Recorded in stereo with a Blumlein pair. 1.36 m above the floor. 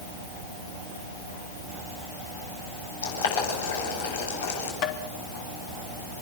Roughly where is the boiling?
Ahead left.